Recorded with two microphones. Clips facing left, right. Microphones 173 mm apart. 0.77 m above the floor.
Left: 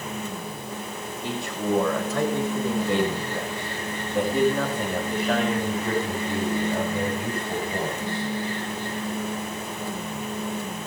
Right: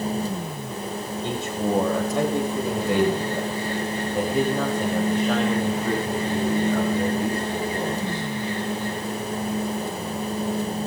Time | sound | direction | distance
1.2 | a man speaking | 25° right (ahead or behind) | 4.5 m